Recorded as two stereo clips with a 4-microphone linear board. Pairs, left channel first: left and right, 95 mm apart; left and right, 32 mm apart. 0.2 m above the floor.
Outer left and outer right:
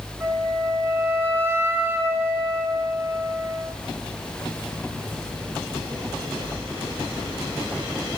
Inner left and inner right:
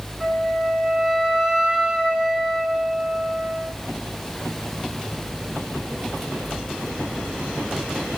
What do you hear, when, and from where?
0.2 s a flute: 25° right (ahead or behind), 0.6 m